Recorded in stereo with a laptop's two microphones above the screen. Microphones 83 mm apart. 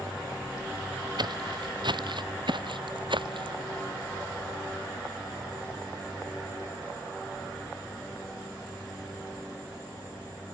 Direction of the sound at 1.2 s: 60° right (ahead or behind).